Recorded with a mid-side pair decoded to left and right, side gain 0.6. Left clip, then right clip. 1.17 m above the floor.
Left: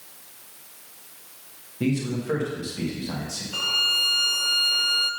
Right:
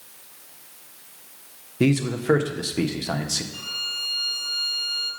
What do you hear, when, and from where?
1.8 s a man speaking: 50° right, 1.2 m
3.5 s a violin: 60° left, 0.7 m